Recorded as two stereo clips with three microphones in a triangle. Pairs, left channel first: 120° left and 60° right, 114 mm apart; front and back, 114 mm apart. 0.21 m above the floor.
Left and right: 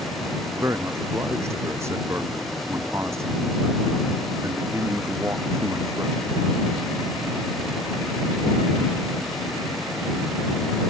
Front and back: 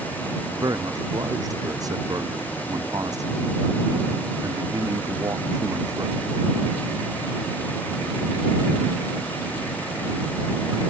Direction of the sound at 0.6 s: 125° right.